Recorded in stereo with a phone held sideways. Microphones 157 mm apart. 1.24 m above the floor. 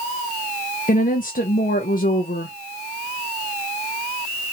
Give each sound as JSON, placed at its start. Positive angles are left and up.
{"t": 0.9, "sound": "a woman speaking", "side_deg": 60, "distance_m": 0.6}